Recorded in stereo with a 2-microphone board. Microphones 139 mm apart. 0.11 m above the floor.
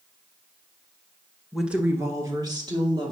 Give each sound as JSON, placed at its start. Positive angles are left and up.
{"t": 1.5, "sound": "a woman speaking", "side_deg": 0, "distance_m": 1.1}